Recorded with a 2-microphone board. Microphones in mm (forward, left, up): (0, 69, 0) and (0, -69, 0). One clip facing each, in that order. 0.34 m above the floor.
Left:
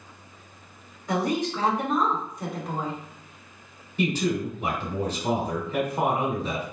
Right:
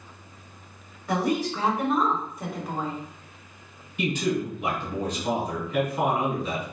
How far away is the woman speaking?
About 1.0 m.